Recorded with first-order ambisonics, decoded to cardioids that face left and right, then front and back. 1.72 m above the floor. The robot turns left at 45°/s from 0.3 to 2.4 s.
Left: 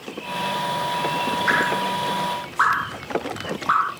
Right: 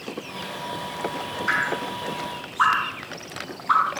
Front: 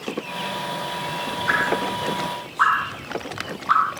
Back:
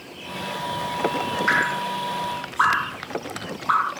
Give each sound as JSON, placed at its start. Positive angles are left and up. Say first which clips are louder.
{"t": 1.5, "sound": "dripping", "louder": "left 2 dB, front 1 dB", "azimuth_deg": 135, "distance_m": 2.5}